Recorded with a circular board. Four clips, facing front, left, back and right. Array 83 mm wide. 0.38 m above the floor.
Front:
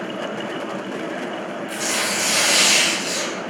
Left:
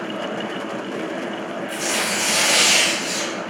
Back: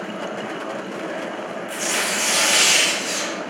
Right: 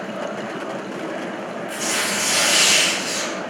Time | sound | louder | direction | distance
1.7 | tearing paper | even, even | 175° right | 1.5 m